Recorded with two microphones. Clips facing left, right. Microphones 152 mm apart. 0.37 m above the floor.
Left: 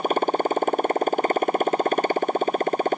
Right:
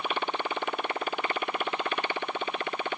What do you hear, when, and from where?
0.0 s a motorcycle: 45° left (ahead or behind)